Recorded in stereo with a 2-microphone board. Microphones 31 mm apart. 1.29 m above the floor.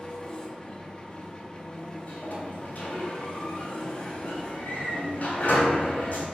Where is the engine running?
25° left (ahead or behind), 1.1 m.